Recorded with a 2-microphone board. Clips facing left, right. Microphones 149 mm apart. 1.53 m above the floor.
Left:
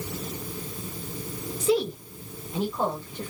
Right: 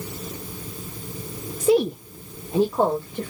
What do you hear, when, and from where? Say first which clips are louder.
1.6 s a woman speaking: right 5 dB; 45° right (ahead or behind), 0.8 m; by 3.3 s 85° right, 2.0 m